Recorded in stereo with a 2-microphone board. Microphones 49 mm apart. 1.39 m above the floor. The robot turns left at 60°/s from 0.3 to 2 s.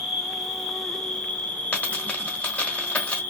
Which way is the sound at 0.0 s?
165° right.